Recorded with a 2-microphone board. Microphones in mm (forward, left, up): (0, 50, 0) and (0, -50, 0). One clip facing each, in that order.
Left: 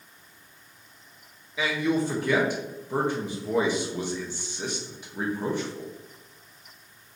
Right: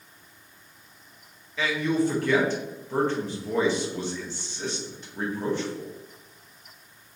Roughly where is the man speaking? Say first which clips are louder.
Right 1 dB; centre.